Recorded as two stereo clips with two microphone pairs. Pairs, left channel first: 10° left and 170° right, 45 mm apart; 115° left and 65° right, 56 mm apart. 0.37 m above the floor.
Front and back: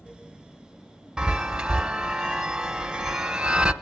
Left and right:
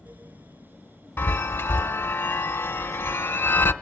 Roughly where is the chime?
Behind left.